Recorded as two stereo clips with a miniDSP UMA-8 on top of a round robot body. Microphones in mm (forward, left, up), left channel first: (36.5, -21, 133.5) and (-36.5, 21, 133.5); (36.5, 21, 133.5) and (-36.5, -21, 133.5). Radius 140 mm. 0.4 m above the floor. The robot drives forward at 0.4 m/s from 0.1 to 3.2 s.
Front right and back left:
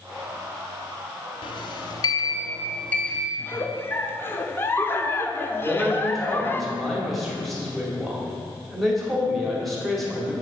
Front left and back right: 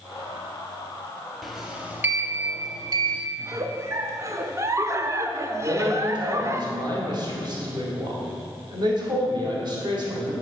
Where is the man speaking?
120° right, 2.5 m.